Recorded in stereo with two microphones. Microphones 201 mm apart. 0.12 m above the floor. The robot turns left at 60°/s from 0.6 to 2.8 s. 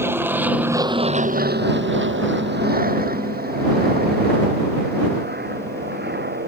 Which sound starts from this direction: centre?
An aircraft, at 0.0 s.